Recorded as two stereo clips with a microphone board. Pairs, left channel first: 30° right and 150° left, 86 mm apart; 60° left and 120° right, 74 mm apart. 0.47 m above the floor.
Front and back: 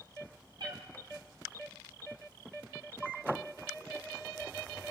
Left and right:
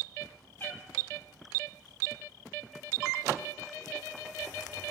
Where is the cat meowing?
120° left, 1.1 m.